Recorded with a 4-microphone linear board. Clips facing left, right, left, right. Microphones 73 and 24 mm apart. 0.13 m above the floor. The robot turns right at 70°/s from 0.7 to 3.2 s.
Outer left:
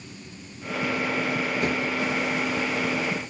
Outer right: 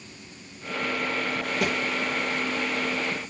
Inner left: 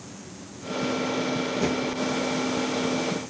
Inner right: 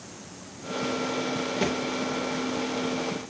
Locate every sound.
1.6 s a thud: 90° right, 5 m; by 1.8 s 80° right, 5 m